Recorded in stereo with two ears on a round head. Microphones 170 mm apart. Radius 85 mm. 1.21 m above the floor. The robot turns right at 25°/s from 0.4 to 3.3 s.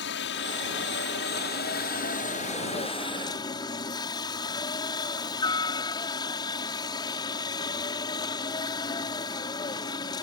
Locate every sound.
0.0 s a helicopter: 80° left; by 10.2 s 155° left